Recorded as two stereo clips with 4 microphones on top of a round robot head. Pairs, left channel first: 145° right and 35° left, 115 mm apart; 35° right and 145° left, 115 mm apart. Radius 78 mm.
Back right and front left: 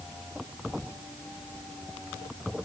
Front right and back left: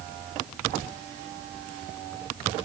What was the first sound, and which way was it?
Only background noise.